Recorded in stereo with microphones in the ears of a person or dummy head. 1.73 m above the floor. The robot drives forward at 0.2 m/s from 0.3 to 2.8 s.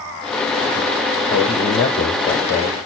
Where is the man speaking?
65° left (ahead or behind), 1.0 m; by 2.9 s 85° left, 0.9 m.